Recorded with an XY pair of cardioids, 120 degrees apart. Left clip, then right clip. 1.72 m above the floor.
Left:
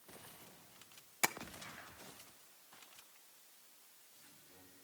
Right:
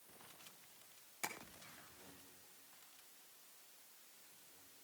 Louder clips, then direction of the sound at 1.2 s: Left 10 dB; 60° left.